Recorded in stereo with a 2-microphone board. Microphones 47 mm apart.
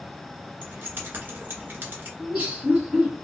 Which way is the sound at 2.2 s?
30° right (ahead or behind).